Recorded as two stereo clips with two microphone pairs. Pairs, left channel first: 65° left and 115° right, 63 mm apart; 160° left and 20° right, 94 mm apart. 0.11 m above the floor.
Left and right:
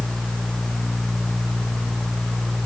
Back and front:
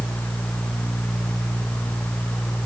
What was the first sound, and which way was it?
Only background noise.